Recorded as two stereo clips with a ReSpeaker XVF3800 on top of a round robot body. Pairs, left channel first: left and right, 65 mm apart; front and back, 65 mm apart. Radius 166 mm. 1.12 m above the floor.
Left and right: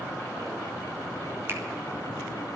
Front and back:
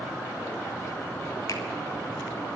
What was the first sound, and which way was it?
A finger snap, 40° right.